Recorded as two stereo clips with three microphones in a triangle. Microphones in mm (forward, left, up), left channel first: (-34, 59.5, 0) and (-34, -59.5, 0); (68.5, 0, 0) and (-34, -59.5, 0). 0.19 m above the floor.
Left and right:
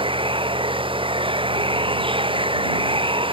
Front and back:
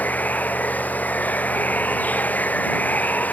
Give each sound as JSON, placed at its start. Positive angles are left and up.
{"t": 0.0, "sound": "running water", "azimuth_deg": -50}